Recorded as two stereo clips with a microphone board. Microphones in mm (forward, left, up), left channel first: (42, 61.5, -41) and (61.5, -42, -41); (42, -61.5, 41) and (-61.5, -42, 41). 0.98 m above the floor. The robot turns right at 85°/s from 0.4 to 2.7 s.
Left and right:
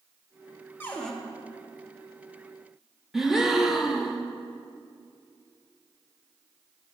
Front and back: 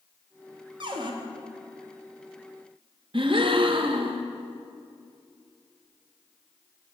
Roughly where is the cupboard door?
Behind.